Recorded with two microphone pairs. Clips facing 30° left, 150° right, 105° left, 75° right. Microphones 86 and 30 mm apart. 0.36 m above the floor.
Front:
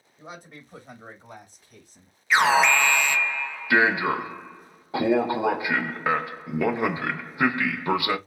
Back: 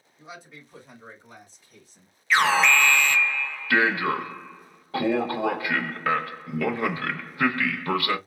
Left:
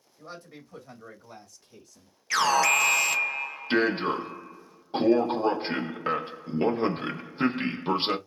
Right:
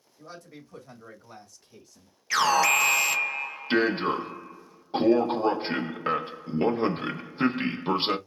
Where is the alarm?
5° left, 0.5 m.